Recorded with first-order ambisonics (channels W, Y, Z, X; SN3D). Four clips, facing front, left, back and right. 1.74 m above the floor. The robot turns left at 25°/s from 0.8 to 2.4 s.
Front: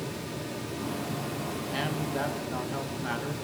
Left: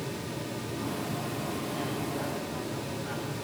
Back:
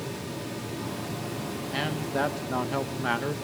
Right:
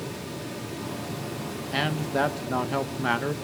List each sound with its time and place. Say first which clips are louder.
1.7 s a man speaking: right 6 dB, back 3 dB; 100° right, 1.7 m; by 3.4 s 115° right, 1.7 m